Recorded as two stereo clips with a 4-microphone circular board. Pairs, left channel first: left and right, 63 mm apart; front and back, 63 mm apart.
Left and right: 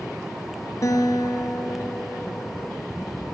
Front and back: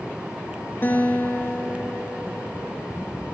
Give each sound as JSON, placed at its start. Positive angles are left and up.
{"t": 0.8, "sound": "a guitar", "azimuth_deg": 55, "distance_m": 4.5}